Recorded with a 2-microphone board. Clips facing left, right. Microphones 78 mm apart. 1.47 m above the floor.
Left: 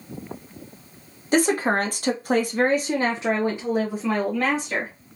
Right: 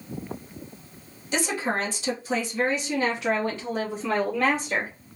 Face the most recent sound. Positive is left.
turn(degrees=-5)  # may be behind; listen again after turning